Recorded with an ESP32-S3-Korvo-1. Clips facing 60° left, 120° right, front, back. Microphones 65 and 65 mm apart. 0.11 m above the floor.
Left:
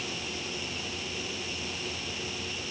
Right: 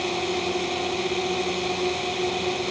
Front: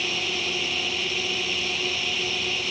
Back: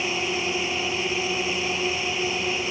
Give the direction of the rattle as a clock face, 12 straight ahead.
I don't hear a rattle.